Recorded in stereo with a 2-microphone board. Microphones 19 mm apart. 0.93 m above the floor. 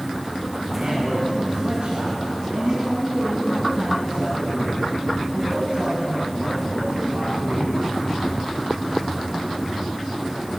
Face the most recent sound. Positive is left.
turn(degrees=-80)